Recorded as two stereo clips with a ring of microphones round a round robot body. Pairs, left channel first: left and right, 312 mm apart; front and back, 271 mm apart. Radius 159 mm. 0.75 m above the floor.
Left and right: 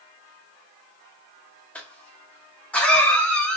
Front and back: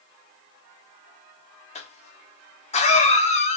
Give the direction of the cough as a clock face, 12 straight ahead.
12 o'clock.